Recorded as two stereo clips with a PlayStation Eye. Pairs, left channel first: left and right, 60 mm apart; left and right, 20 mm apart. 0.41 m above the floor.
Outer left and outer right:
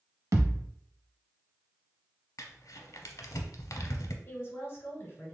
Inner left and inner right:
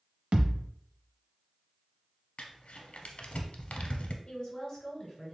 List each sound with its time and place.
0.3 s a thud: 75° right (ahead or behind), 0.7 m
2.4 s crumpling: 80° left, 0.6 m
4.2 s a woman speaking: 40° left (ahead or behind), 1.9 m